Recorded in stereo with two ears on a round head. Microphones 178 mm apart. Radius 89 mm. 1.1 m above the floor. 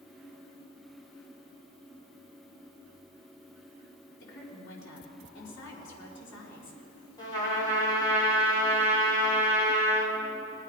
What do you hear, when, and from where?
4.2 s a woman speaking: 65° left (ahead or behind), 3.5 m
7.2 s a trumpet: 20° left (ahead or behind), 3.5 m